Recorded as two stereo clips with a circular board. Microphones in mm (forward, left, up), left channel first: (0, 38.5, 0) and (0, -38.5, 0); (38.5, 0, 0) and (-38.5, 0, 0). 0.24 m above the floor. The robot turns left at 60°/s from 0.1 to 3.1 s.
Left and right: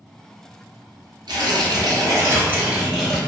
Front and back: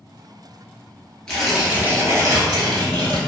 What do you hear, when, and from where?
1.3 s tearing paper: 80° right, 1.1 m; by 3.2 s 170° left, 1.1 m